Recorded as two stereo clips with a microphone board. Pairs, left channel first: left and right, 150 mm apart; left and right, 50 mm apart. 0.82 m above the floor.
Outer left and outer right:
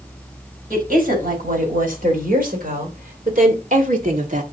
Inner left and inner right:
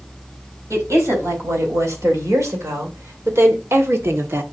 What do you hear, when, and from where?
0.7 s a woman speaking: 75° right (ahead or behind), 4.5 m; by 4.4 s 60° right (ahead or behind), 1.2 m